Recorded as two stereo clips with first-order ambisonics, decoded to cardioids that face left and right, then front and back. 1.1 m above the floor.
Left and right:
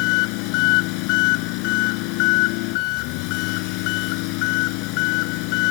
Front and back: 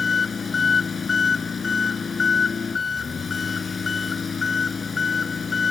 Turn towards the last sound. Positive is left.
turn(degrees=75)